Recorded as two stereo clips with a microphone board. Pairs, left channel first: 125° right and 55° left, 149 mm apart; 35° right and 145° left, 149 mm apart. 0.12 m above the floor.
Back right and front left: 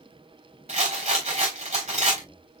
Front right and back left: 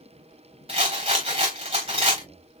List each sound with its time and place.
0.7 s a rattle: 100° left, 3.5 m